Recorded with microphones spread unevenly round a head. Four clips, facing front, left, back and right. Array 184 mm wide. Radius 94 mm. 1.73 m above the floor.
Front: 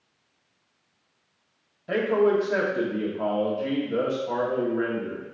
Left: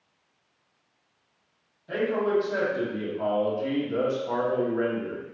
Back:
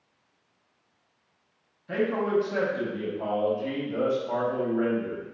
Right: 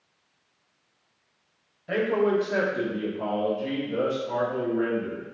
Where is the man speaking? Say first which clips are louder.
Right 2 dB, front 4 dB; 20° right, 1.2 m; by 5.3 s 60° left, 1.7 m.